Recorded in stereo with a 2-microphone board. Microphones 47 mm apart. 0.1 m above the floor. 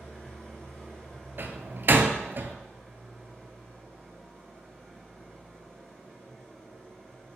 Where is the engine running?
5° left (ahead or behind), 3.5 m.